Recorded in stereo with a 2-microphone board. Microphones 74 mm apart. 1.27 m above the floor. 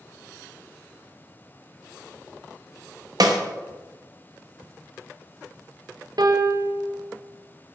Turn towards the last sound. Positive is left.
turn(degrees=-65)  # may be behind; listen again after turning